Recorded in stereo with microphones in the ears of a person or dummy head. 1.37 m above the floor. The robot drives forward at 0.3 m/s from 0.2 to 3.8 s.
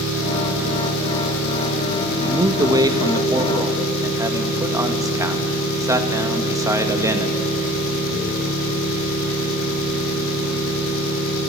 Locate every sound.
0.0 s an engine running: 90° left, 3 m; by 11.5 s 70° left (ahead or behind), 3.5 m
2.2 s a man speaking: 25° right (ahead or behind), 1.7 m; by 7.4 s 20° right (ahead or behind), 2 m